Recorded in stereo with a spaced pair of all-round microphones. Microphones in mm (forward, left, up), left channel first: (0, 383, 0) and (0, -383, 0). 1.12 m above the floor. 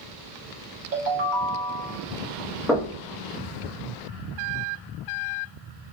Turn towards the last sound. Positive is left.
turn(degrees=0)  # may be behind; listen again after turning